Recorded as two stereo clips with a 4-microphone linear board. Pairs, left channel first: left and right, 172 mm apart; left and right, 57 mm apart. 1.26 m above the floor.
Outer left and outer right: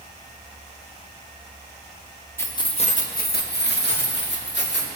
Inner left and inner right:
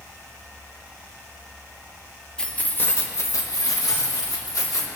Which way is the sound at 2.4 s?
15° left (ahead or behind).